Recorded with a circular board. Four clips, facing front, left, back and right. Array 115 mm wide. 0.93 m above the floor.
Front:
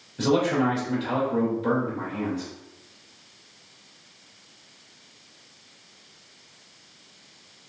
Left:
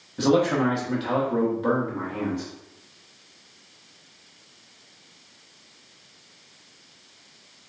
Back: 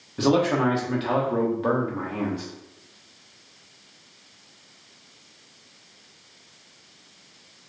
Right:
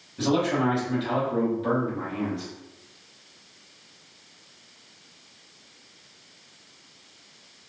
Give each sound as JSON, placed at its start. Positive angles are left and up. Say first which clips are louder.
{"t": 0.2, "sound": "a man speaking", "louder": "left 3 dB, back 1 dB", "azimuth_deg": 150, "distance_m": 1.2}